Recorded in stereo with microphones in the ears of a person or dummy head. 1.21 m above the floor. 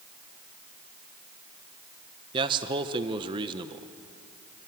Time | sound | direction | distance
2.3 | a man speaking | 30° right (ahead or behind) | 0.9 m